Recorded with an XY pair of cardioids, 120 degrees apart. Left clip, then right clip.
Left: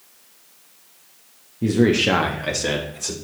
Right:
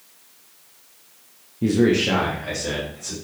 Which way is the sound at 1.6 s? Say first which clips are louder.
Left 1 dB; 5° right.